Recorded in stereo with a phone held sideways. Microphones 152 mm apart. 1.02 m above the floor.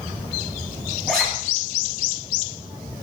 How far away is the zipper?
About 8.5 m.